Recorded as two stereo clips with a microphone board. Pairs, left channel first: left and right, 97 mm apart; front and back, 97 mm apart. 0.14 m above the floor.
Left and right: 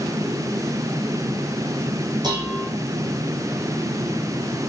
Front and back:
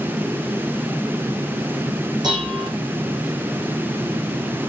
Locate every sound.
2.2 s dishes clattering: 135° right, 6.5 m